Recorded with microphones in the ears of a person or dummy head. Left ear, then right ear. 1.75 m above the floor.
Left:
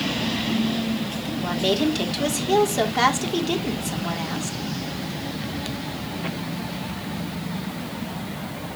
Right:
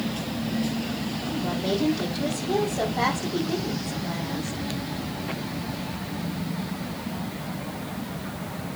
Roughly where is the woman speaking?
Left.